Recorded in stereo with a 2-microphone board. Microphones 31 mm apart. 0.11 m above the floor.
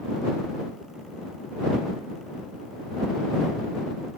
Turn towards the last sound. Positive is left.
No sound to turn to.